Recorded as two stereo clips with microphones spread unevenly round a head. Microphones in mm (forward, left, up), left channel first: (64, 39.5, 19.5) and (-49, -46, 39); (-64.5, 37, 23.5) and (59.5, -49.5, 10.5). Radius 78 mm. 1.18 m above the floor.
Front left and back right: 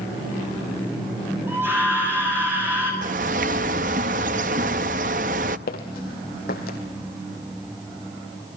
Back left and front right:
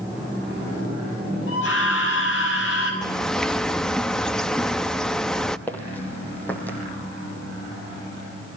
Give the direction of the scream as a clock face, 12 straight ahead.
7 o'clock.